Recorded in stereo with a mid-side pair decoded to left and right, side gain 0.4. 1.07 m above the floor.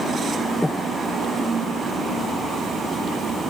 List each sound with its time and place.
0.6 s breathing: 15° left, 0.8 m